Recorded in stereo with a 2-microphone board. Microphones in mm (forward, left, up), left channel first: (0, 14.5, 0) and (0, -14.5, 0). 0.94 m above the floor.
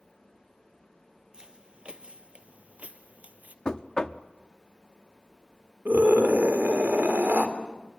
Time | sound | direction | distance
1.3 | footsteps | 30° right (ahead or behind) | 1.6 m
3.6 | knocking | 30° left (ahead or behind) | 0.8 m
5.8 | a scream | 80° right | 3 m